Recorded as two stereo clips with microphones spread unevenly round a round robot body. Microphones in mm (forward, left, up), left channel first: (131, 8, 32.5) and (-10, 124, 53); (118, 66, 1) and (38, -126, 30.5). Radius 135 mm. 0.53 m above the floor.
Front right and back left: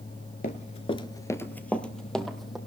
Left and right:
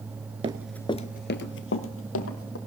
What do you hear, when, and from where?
0.4 s running footsteps: 85° right, 0.5 m; by 2.6 s 55° left, 1.6 m